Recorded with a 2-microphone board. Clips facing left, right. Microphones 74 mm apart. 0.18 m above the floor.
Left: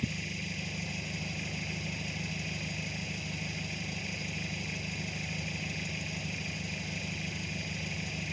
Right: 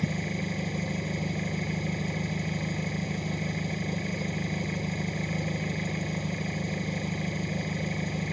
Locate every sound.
0.0 s an engine running: 45° right (ahead or behind)